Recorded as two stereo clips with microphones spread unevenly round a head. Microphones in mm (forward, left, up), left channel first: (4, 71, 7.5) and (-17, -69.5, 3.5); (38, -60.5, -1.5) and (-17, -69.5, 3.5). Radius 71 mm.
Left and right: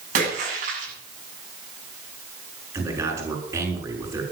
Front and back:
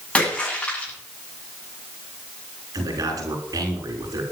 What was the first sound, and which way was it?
A splash, 60° right.